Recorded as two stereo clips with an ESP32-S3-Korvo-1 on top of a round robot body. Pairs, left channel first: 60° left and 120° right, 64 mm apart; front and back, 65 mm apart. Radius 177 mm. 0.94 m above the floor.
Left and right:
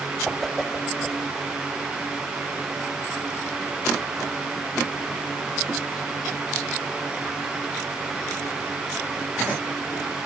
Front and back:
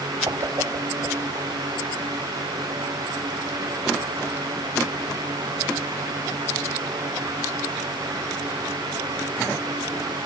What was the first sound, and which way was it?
A whoosh, 150° left.